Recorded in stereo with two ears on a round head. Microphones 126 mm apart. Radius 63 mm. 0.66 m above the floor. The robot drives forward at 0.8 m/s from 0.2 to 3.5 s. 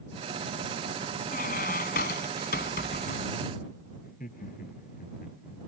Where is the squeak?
65° left (ahead or behind); by 3.5 s 85° left.